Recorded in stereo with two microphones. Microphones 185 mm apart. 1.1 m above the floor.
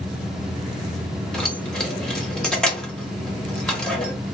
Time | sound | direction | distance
1.3 | keys jangling | 5° left (ahead or behind) | 1.0 m